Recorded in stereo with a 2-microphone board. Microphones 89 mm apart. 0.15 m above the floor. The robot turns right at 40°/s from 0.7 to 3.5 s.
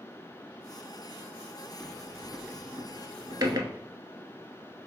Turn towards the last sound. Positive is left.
turn(degrees=-45)  # may be behind; listen again after turning